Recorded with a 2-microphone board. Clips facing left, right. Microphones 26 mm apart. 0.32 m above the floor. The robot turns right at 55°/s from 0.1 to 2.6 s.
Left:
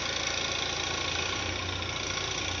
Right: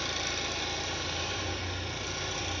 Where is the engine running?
15° left, 1.6 m; by 2.6 s 150° left, 1.6 m.